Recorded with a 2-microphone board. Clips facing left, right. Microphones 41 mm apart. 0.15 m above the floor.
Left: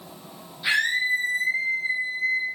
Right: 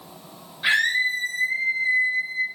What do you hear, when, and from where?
0.6 s a scream: 45° right (ahead or behind), 6 m